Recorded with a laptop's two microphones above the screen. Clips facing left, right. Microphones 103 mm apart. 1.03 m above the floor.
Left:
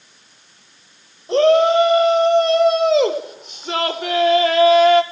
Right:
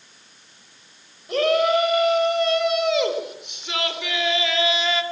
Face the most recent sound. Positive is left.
turn(degrees=50)  # may be behind; listen again after turning